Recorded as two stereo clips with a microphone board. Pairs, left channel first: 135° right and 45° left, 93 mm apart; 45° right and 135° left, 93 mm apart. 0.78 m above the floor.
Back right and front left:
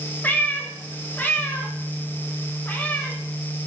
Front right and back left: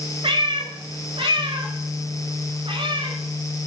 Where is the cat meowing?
155° left, 1.3 m.